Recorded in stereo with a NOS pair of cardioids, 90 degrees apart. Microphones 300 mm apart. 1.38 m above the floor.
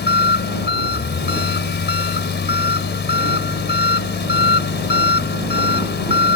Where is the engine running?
35° left.